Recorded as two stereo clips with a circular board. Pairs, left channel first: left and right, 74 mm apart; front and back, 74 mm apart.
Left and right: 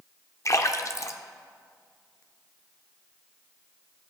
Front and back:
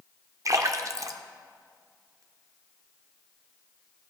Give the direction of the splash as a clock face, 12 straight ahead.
7 o'clock.